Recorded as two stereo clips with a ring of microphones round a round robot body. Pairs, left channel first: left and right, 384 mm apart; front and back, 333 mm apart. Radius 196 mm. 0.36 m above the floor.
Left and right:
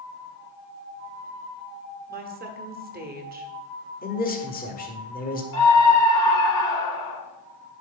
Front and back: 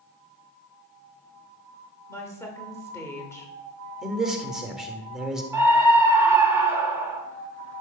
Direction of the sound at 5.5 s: 100° left.